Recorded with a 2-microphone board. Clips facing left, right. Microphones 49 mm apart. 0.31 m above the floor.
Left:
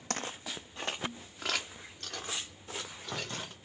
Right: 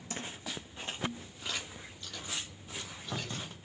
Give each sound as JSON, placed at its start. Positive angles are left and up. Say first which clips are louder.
{"t": 0.1, "sound": "footsteps", "louder": "left 3 dB", "side_deg": 70, "distance_m": 0.7}